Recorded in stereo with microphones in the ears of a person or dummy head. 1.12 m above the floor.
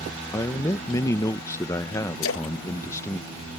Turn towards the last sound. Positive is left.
turn(degrees=70)  # may be behind; listen again after turning